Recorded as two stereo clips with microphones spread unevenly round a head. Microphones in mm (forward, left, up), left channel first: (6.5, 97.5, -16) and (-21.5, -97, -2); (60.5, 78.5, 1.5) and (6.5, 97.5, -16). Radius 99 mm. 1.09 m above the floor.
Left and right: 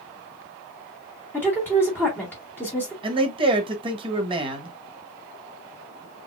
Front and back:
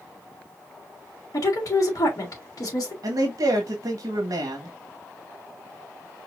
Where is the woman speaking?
Straight ahead, 2 m.